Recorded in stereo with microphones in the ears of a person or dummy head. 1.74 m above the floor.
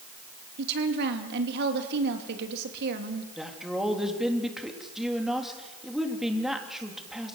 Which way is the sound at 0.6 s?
65° right (ahead or behind).